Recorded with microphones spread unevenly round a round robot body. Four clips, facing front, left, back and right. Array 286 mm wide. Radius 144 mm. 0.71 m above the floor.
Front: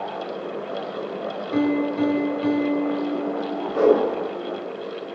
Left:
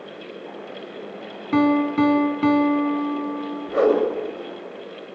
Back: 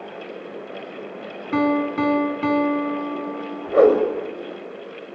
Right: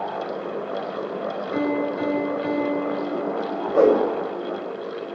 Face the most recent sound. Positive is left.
turn(degrees=-170)